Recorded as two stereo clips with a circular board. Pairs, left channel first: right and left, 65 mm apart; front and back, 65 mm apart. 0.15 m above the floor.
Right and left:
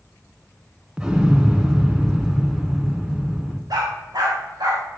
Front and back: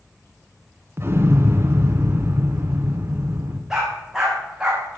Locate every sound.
1.0 s an explosion: 160° left, 1.3 m
3.7 s a dog barking: 100° left, 4 m